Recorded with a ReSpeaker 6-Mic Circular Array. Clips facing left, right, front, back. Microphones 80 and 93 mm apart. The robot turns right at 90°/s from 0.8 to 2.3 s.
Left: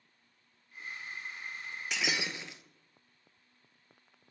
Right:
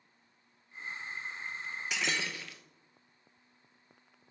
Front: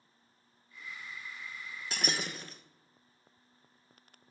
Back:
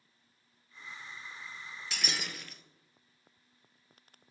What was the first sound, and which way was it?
Breaking glass, 5° right.